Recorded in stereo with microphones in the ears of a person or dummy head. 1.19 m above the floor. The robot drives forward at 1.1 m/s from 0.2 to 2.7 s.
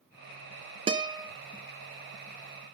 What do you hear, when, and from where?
0.9 s a guitar: 25° right (ahead or behind), 0.6 m; by 1.3 s 15° right (ahead or behind), 1.0 m